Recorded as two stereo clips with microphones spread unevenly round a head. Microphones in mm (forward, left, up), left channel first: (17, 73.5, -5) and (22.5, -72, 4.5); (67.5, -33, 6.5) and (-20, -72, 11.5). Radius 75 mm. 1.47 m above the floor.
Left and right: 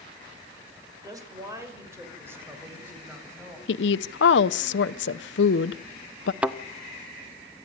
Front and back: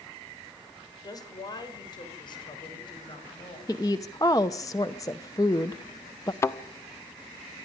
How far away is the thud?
About 1.1 m.